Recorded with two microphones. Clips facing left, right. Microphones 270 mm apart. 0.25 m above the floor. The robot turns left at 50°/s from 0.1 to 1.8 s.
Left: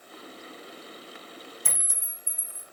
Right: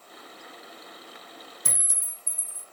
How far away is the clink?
About 0.7 m.